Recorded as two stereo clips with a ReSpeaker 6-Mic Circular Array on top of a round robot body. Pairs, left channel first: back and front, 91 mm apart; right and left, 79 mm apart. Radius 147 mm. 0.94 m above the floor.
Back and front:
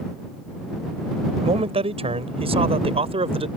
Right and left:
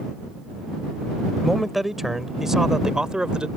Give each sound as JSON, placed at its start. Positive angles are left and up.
{"t": 1.4, "sound": "a man speaking", "azimuth_deg": 0}